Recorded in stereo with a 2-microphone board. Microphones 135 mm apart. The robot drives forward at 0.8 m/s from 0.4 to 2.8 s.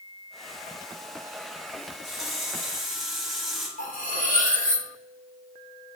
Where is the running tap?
Centre (ahead or behind), 1.9 m.